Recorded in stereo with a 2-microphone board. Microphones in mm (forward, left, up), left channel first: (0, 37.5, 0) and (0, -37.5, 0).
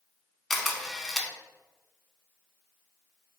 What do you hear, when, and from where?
0.5 s a camera shutter: centre (ahead or behind), 0.6 m